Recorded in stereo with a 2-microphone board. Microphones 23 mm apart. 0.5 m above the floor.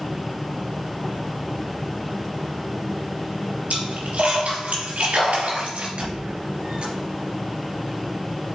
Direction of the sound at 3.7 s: 80° right.